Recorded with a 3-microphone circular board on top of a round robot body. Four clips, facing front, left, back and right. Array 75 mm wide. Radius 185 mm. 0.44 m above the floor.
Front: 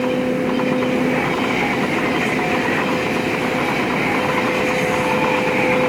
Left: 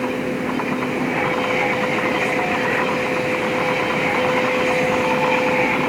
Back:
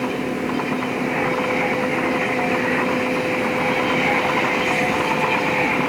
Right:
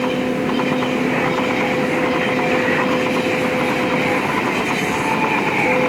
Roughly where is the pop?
No pop in this recording.